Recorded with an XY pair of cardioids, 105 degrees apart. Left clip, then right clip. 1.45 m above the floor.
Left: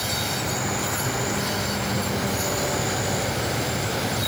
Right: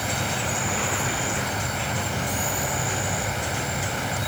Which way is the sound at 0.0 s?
15° right.